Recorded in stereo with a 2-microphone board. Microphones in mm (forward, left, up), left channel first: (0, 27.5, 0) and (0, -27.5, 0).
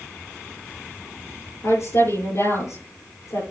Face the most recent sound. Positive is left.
turn(degrees=60)  # may be behind; listen again after turning